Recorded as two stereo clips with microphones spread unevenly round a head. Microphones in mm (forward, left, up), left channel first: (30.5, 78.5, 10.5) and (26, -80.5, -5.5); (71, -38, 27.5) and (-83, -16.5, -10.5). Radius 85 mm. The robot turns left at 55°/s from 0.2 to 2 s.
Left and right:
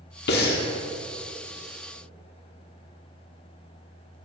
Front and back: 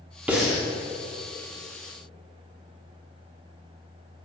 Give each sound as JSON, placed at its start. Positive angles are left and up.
{"t": 0.3, "sound": "breathing", "azimuth_deg": 85, "distance_m": 1.5}